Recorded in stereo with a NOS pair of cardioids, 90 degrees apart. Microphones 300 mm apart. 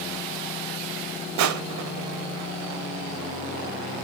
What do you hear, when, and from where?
1.4 s crushing: 65° right, 0.8 m